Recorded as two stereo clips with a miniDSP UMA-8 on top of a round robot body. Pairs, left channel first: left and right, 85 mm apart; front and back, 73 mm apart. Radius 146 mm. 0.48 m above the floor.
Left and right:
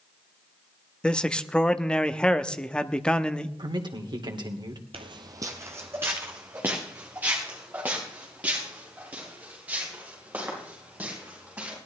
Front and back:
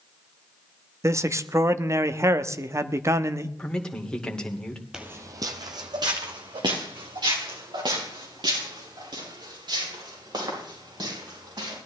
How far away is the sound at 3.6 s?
About 2.5 m.